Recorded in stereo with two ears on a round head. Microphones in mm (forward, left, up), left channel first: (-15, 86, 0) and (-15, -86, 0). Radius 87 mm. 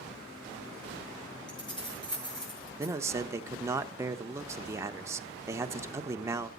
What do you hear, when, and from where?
1.5 s keys jangling: 25° left (ahead or behind), 5.5 m
2.8 s a man speaking: 15° right (ahead or behind), 0.9 m